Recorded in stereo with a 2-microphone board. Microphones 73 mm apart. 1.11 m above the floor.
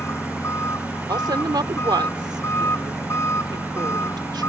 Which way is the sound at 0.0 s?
35° left (ahead or behind).